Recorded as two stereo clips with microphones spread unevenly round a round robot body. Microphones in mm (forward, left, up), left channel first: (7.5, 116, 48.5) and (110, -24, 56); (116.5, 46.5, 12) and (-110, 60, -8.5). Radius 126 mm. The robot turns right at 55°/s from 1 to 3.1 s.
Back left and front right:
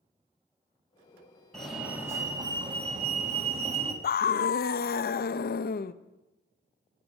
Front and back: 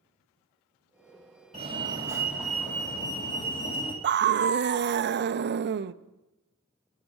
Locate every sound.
1.5 s a fire alarm: 155° right, 2.0 m; by 3.9 s 65° right, 2.0 m
4.0 s a scream: 145° left, 0.6 m